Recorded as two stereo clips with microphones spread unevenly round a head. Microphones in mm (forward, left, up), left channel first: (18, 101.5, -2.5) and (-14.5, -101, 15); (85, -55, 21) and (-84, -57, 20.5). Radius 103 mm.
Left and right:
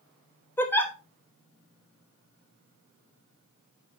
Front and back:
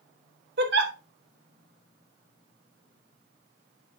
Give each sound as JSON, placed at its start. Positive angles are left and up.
{"t": 0.6, "sound": "a giggle", "azimuth_deg": 165, "distance_m": 1.1}